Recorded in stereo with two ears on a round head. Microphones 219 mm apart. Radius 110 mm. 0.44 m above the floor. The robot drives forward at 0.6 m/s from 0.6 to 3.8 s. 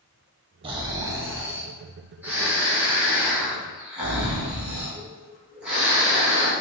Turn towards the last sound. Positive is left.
turn(degrees=-5)  # may be behind; listen again after turning